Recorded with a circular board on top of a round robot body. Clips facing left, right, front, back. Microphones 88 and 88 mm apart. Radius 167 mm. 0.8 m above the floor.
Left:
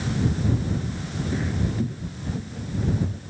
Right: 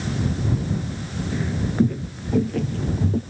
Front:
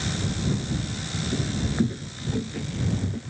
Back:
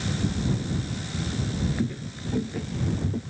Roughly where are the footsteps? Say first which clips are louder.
Right 5 dB, front 3 dB; ahead.